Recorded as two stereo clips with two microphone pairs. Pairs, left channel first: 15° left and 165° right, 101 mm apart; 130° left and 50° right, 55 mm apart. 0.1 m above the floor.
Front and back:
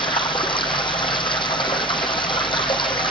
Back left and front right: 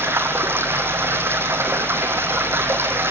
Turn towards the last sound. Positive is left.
turn(degrees=-15)